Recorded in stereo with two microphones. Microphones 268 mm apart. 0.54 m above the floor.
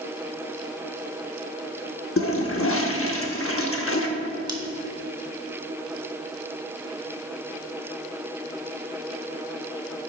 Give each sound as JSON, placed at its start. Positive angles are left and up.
{"t": 2.2, "sound": "a toilet flushing", "side_deg": 55, "distance_m": 0.8}
{"t": 4.5, "sound": "scissors", "side_deg": -15, "distance_m": 1.1}